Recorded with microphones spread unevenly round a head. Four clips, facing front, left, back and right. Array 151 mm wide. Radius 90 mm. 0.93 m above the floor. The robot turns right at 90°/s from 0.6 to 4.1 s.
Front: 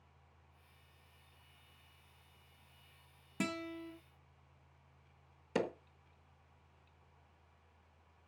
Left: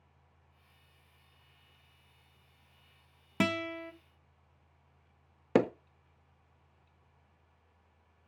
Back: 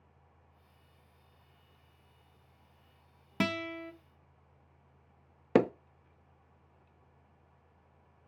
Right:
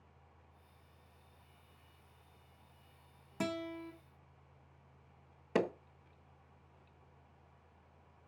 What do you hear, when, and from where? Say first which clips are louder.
3.4 s a guitar: left 6 dB, back 6 dB; 135° left, 1.0 m; by 3.9 s straight behind, 1.0 m
5.5 s hammering: left 6 dB, back 11 dB; 140° left, 0.8 m